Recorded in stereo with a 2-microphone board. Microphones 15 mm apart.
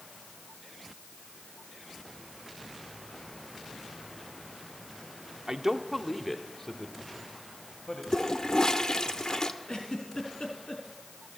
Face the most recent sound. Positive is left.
turn(degrees=70)  # may be behind; listen again after turning